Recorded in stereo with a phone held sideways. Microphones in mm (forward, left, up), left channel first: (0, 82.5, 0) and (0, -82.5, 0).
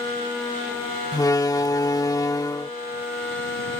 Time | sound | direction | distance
1.1 | a door slam | 20° left (ahead or behind) | ?